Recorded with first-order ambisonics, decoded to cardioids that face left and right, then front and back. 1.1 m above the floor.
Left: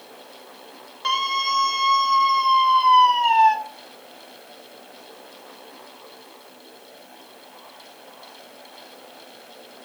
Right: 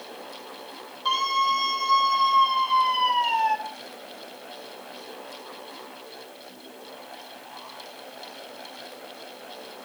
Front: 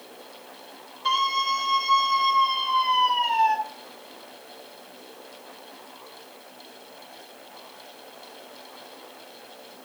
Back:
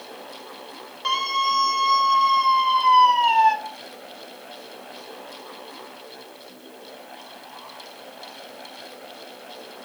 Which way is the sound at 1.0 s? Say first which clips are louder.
Left 1 dB, back 1 dB; 115° left.